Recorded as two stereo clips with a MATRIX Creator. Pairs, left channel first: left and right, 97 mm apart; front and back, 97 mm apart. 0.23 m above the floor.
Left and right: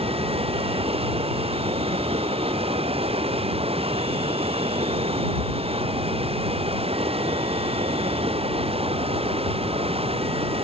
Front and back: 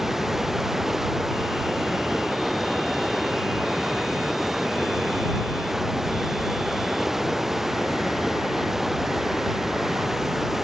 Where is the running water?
95° right.